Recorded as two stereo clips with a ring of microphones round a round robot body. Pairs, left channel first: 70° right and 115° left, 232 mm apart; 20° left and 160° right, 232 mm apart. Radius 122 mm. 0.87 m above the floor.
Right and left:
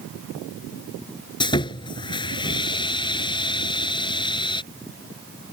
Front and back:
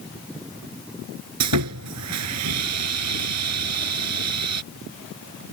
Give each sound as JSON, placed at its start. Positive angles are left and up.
{"t": 1.4, "sound": "sawing", "azimuth_deg": -140}